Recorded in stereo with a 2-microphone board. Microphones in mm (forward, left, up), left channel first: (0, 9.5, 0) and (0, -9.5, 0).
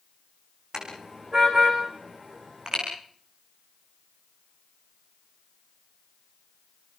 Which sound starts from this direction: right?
A car horn, at 0.7 s.